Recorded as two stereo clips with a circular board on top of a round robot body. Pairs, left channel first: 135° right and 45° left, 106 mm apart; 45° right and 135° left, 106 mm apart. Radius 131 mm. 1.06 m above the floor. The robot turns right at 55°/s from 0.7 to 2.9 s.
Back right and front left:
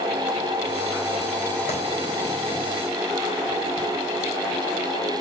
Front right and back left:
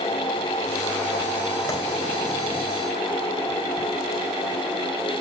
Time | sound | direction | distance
1.7 | a clap | 105° right | 4 m